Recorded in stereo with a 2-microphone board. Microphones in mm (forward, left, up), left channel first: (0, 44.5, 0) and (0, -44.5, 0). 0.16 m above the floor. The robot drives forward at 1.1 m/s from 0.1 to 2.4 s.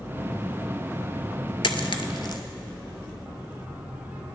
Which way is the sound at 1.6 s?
65° left (ahead or behind).